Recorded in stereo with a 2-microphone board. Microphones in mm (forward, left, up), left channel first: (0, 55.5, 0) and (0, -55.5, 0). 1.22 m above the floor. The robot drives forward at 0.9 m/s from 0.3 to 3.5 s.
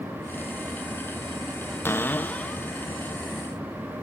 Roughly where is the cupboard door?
Left.